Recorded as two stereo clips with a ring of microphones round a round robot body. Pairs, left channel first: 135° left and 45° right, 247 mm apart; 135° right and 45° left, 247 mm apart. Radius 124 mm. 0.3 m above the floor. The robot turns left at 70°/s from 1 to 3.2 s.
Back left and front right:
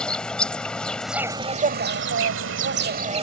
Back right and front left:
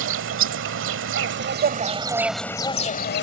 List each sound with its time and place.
0.0 s an insect: 50° left; by 3.2 s 105° right